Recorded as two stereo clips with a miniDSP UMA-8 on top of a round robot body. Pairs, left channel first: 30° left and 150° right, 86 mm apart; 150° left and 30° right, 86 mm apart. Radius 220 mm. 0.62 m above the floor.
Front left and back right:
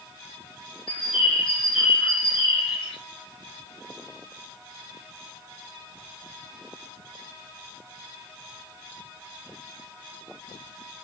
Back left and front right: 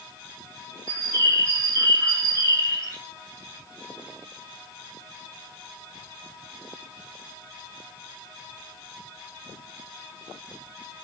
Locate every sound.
0.9 s a bird: 25° left, 4.5 m